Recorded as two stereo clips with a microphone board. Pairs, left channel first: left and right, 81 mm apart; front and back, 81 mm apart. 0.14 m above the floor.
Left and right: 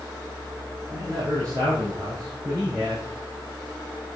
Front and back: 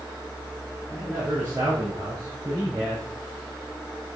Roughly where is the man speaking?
Behind right.